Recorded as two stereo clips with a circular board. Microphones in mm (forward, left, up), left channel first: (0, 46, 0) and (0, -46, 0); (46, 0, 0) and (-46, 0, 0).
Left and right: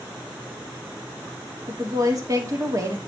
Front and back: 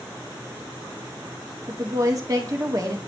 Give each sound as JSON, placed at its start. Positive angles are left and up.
{"t": 1.7, "sound": "a woman speaking", "azimuth_deg": -135, "distance_m": 1.9}